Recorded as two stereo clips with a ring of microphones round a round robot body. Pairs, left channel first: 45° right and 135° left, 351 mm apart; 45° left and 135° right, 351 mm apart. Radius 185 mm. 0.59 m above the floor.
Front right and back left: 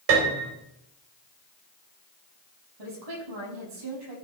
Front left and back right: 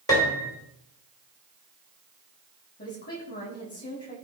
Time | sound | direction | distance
0.1 | a piano | 125° left | 3 m
2.8 | a woman speaking | 110° left | 6 m